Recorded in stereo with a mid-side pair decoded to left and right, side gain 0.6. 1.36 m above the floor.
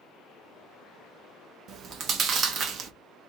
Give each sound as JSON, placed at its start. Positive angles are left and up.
{"t": 1.7, "sound": "chewing", "azimuth_deg": -50, "distance_m": 0.6}